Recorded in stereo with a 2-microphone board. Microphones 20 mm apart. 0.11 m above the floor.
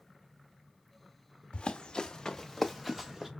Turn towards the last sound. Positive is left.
turn(degrees=-25)  # may be behind; listen again after turning